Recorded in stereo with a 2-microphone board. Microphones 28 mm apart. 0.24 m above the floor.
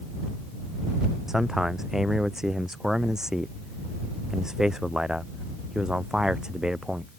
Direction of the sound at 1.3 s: 15° right (ahead or behind).